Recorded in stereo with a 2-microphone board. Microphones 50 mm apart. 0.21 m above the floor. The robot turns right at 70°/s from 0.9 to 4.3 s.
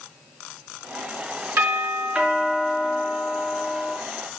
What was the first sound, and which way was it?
A doorbell, 65° right.